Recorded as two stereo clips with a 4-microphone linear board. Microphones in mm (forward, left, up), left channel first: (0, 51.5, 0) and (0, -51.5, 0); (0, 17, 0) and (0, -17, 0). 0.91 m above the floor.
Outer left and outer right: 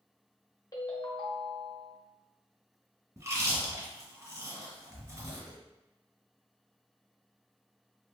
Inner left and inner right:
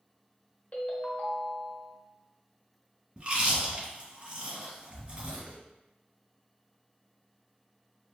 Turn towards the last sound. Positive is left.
turn(degrees=-30)  # may be behind; listen again after turning